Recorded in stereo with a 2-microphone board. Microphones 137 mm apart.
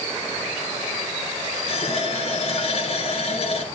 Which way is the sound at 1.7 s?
45° left (ahead or behind).